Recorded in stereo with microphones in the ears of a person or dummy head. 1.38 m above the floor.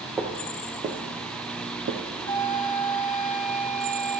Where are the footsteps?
10° right (ahead or behind), 1.7 m; by 2.0 s 45° right (ahead or behind), 1.9 m.